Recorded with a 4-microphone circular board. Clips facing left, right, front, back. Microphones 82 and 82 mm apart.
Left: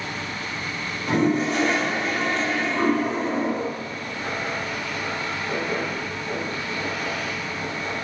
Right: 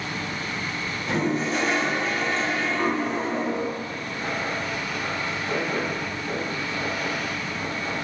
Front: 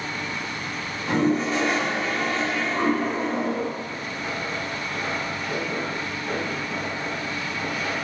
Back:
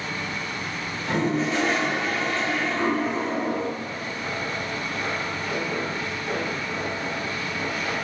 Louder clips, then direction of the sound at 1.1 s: Left 4 dB, front 2 dB; 70° left.